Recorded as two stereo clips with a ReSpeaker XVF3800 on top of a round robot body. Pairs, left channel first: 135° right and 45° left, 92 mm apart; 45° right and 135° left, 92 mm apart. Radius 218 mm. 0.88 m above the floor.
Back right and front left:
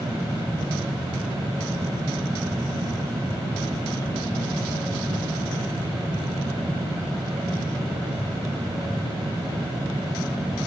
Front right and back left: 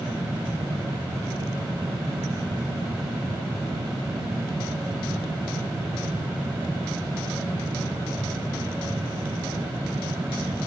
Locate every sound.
Only background noise.